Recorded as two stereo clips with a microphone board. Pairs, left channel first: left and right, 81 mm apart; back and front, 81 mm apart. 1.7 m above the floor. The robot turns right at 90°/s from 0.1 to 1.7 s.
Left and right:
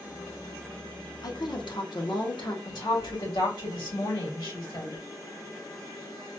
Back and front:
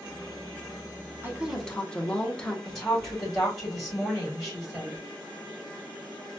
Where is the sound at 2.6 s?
90° left, 2.5 m.